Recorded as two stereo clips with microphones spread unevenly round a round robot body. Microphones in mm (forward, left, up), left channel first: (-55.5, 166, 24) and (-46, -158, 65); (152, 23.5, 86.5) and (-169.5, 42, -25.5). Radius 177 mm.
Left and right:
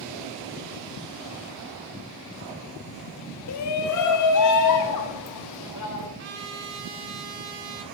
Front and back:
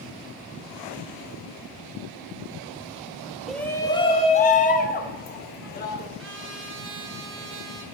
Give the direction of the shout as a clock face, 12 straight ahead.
9 o'clock.